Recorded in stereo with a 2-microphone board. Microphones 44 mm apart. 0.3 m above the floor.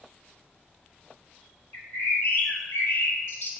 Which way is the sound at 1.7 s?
65° left (ahead or behind).